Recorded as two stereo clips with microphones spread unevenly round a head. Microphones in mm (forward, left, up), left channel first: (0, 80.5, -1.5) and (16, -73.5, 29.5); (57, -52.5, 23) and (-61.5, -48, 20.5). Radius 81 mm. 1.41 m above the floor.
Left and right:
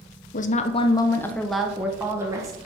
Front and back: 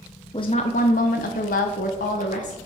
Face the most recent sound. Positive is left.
turn(degrees=-15)